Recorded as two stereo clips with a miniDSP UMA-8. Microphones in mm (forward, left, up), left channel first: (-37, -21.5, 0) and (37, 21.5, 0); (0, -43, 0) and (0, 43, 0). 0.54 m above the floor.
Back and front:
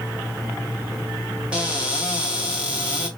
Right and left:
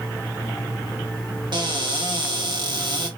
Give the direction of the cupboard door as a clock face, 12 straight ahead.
8 o'clock.